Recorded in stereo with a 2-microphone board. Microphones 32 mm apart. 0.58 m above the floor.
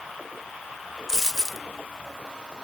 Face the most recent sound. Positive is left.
turn(degrees=15)  # may be behind; listen again after turning